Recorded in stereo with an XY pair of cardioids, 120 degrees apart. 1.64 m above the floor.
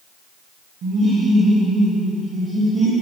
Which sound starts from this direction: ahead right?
Laughter, at 0.8 s.